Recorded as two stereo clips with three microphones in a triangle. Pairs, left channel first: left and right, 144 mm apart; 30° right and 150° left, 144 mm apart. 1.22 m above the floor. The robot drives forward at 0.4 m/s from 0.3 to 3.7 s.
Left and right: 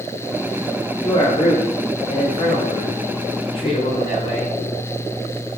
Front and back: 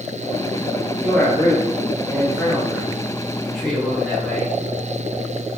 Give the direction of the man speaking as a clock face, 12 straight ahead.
10 o'clock.